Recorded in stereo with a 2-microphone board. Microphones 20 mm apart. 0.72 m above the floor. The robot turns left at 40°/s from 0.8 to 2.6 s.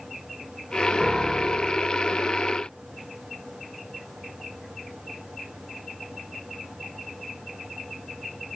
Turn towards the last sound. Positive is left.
turn(degrees=-40)